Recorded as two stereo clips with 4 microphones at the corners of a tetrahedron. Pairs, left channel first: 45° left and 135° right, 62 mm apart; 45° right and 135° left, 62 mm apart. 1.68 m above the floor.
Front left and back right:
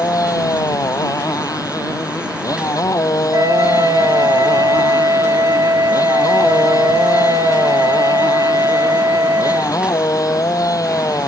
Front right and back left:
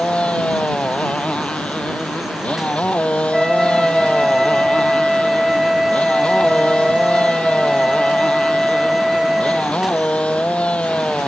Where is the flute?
140° right.